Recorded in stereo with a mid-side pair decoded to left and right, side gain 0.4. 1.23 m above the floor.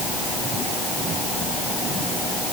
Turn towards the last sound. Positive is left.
No sound to turn to.